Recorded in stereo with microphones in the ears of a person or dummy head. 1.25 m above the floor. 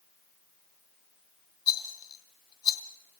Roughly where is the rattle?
Left.